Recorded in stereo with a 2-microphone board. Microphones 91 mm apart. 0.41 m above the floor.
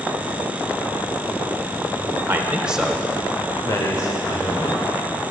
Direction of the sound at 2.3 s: 25° right (ahead or behind).